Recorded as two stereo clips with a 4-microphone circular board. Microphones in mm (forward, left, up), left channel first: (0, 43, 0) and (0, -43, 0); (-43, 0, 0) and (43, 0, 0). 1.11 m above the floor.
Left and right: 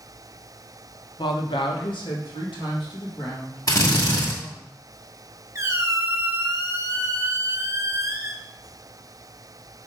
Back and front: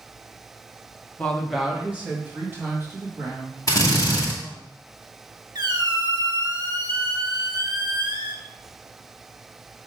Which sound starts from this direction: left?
A woman speaking, at 1.2 s.